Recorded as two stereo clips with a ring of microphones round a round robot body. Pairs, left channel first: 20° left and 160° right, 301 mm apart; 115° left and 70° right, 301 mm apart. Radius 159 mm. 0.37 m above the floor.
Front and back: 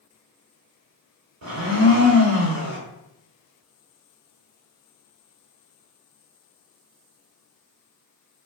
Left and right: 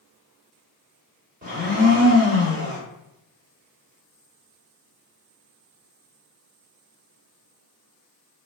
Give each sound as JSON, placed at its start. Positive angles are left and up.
{"t": 1.4, "sound": "a blender", "azimuth_deg": -130, "distance_m": 1.1}